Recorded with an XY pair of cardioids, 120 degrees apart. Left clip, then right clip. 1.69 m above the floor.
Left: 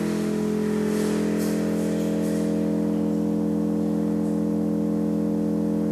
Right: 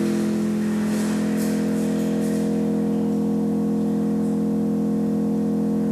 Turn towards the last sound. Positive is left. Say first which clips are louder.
# right 2 dB
turn(degrees=-55)